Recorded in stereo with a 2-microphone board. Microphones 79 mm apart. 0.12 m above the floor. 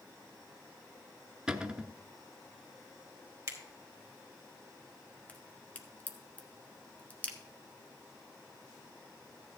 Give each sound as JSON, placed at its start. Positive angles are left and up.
{"t": 1.5, "sound": "a cupboard door", "side_deg": -10, "distance_m": 0.7}
{"t": 3.5, "sound": "a finger snap", "side_deg": -40, "distance_m": 2.5}
{"t": 5.3, "sound": "a crack", "side_deg": 20, "distance_m": 1.4}